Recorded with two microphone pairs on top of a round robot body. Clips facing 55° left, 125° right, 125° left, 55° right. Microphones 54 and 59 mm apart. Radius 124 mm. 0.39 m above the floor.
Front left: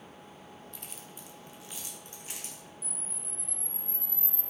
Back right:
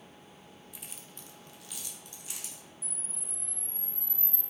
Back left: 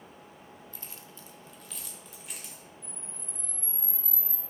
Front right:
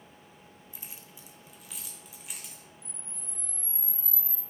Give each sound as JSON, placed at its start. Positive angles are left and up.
{"t": 0.7, "sound": "keys jangling", "azimuth_deg": -35, "distance_m": 0.8}
{"t": 2.8, "sound": "a camera shutter", "azimuth_deg": 95, "distance_m": 2.5}